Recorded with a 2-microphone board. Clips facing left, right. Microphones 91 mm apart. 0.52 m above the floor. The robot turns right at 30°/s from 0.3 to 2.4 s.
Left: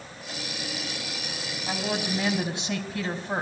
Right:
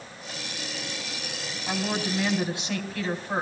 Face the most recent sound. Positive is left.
turn(degrees=20)  # may be behind; listen again after turning